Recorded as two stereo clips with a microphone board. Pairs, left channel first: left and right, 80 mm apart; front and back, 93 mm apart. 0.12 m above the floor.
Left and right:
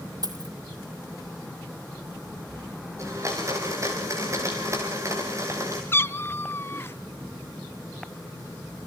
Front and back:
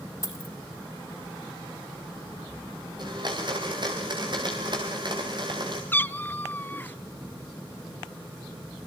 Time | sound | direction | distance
0.2 | a dropped coin | 55° right | 1.7 m
3.0 | a blender | 145° right | 5.5 m
5.9 | a cat meowing | 55° left | 0.6 m